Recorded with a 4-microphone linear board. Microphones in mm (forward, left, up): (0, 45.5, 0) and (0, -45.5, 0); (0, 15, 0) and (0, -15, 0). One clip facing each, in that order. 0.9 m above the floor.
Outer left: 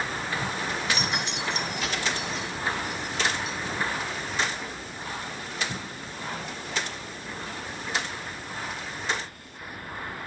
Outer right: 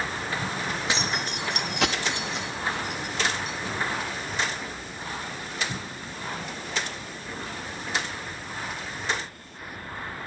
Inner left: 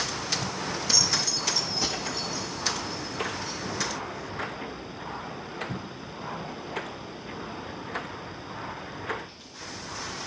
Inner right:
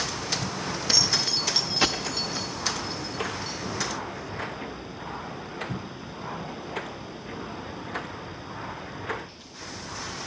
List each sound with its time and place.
0.9 s keys jangling: 20° right (ahead or behind), 1.0 m; by 3.5 s 55° right (ahead or behind), 2.5 m